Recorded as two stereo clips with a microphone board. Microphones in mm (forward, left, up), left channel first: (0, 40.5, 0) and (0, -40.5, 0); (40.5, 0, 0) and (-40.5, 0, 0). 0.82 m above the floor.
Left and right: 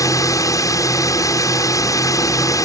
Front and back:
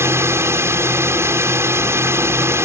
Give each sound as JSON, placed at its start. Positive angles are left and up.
{"t": 0.0, "sound": "a drone", "azimuth_deg": 130}